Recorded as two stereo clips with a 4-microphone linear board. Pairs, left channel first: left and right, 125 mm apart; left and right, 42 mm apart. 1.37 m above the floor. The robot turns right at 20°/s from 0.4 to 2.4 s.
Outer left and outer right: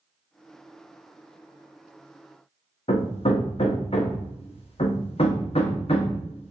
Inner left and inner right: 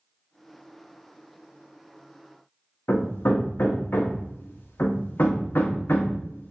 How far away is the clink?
I don't hear a clink.